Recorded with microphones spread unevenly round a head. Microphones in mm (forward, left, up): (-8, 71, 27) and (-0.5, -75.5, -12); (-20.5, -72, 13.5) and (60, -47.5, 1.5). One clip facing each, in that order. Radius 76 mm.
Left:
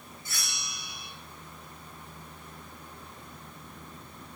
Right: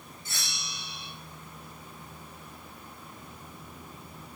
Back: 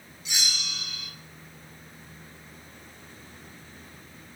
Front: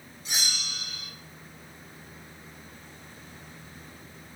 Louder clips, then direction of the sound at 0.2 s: Right 1 dB, back 1 dB; 30° right.